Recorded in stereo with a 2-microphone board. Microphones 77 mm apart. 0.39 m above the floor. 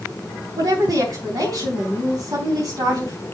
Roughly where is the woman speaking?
Right.